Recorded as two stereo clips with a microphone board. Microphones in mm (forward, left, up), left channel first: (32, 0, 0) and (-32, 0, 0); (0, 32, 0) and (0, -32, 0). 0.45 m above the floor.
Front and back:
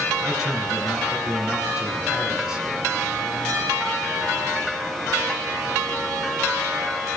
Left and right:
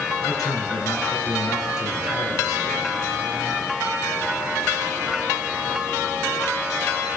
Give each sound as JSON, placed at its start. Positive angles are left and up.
{"t": 0.2, "sound": "a man speaking", "azimuth_deg": 100, "distance_m": 7.0}